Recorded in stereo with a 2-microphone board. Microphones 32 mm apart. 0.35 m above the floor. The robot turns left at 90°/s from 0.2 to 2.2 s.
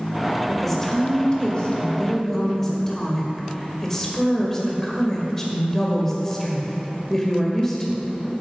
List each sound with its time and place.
0.5 s a woman speaking: straight behind, 1.6 m; by 8.1 s 25° left, 1.6 m